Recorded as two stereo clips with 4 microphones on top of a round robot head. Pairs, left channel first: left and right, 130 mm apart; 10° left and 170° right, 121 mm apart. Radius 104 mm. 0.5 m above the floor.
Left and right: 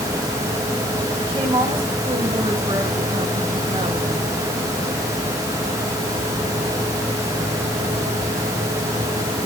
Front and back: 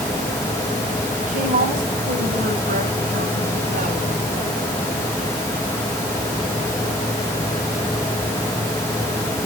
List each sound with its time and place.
1.2 s a woman speaking: 150° right, 3.5 m